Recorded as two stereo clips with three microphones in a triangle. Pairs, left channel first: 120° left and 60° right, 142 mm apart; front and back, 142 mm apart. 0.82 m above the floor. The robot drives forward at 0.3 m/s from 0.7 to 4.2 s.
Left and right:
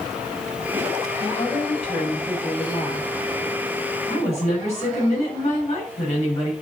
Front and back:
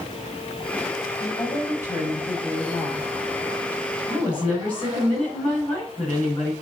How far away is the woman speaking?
About 6 m.